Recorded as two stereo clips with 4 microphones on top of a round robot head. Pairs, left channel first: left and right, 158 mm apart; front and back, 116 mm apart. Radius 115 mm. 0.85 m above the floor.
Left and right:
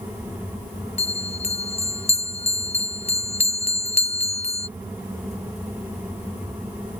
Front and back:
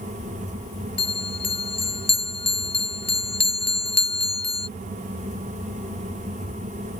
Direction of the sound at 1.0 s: 40° left.